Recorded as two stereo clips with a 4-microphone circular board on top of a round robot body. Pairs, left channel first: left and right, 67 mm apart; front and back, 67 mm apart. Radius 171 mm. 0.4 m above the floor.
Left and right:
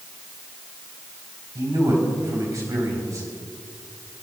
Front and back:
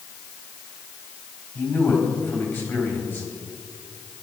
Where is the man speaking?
55° right, 4 m.